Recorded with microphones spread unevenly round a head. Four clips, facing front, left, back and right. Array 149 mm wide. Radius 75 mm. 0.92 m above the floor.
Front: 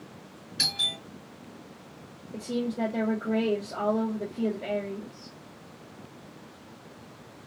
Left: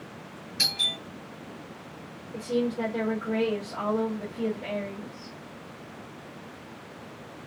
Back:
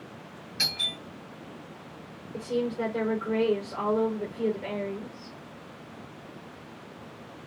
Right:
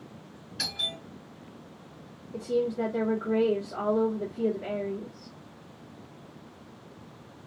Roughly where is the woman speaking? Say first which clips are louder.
Even, back 1 dB; ahead.